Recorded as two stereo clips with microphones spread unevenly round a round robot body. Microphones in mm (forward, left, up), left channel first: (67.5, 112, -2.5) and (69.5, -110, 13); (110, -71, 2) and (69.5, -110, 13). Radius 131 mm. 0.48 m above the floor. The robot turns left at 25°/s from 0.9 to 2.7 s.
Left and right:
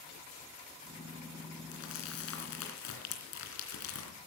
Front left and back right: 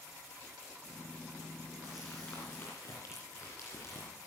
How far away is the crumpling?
About 3 m.